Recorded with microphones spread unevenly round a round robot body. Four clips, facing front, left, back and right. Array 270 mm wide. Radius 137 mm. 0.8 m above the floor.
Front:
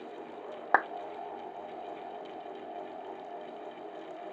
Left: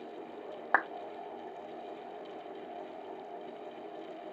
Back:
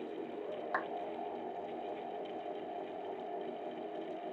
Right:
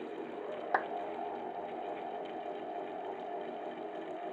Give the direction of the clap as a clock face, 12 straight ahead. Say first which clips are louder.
Left 3 dB, front 12 dB; 12 o'clock.